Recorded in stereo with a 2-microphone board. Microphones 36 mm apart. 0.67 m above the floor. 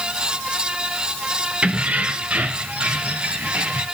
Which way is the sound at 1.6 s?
40° right (ahead or behind).